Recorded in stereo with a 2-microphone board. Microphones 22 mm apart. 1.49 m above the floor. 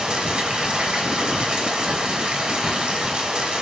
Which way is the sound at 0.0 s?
60° right (ahead or behind).